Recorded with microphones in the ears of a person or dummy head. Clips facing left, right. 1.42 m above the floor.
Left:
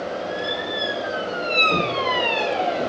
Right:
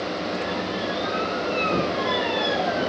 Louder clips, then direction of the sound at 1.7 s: Left 1 dB; 40° right (ahead or behind).